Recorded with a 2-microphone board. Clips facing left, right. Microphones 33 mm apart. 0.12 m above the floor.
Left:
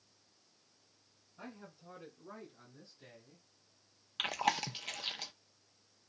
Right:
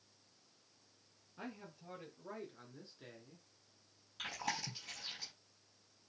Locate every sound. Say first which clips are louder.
1.4 s a man speaking: right 1 dB; 60° right (ahead or behind), 2 m; by 3.5 s 10° right (ahead or behind), 1.2 m
4.2 s chewing: left 8 dB; 75° left (ahead or behind), 0.7 m